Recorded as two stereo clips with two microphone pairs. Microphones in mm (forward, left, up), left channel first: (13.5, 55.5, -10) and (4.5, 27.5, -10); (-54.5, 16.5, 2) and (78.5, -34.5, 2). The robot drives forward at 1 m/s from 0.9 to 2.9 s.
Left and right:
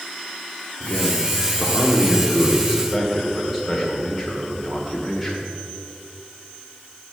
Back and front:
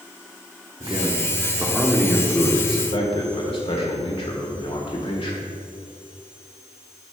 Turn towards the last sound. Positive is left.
turn(degrees=165)